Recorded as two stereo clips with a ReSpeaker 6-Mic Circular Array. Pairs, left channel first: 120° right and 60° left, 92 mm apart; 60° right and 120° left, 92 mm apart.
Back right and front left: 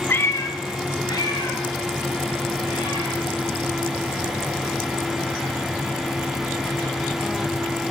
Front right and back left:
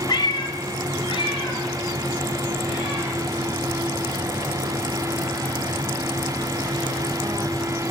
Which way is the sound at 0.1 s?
60° right.